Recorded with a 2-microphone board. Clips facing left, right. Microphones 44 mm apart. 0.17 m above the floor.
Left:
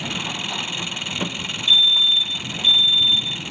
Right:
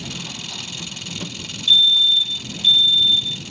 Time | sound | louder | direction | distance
0.0 | an engine running | left 5 dB | 35° left (ahead or behind) | ?
1.7 | a fire alarm | right 1 dB | 10° right (ahead or behind) | ?